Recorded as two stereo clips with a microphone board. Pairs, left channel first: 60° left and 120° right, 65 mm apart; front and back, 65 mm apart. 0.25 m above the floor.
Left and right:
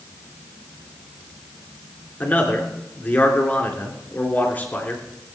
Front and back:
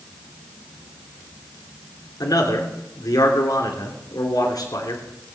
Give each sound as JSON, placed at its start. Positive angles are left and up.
{"t": 2.2, "sound": "a man speaking", "azimuth_deg": -5, "distance_m": 3.0}